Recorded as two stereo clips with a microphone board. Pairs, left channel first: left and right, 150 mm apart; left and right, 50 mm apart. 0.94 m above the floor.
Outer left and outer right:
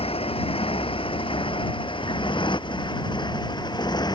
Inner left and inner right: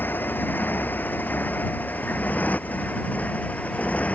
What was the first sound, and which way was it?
A motorcycle, 40° left (ahead or behind).